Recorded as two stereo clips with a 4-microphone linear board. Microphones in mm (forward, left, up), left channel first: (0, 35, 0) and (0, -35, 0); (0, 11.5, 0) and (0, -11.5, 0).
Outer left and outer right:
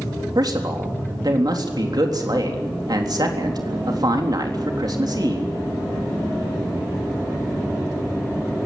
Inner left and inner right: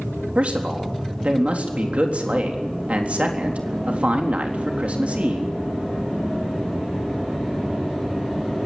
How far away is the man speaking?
About 3.5 m.